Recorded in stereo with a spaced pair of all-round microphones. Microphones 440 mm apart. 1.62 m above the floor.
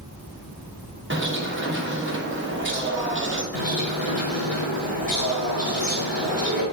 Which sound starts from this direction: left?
A bird, at 3.5 s.